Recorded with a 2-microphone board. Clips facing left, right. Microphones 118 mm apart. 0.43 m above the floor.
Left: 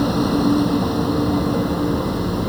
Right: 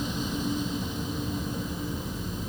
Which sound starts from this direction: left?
A vehicle, at 0.0 s.